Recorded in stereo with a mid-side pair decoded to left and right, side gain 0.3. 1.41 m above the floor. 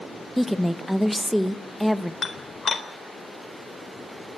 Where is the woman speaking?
5° right, 1.6 m.